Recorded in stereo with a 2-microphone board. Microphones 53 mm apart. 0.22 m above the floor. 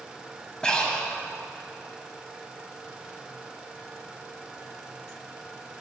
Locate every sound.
0.6 s breathing: 20° left (ahead or behind), 0.7 m